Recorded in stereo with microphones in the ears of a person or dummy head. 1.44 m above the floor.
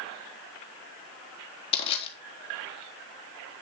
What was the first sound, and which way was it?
Crushing, 30° left (ahead or behind).